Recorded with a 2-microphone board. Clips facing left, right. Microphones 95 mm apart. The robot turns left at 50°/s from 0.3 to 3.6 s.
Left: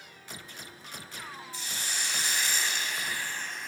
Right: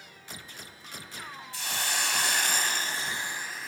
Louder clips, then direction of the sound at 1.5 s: Right 7 dB; 75° right.